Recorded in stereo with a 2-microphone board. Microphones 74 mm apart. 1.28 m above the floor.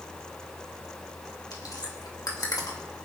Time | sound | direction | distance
1.5 | chewing | 60° left (ahead or behind) | 2.5 m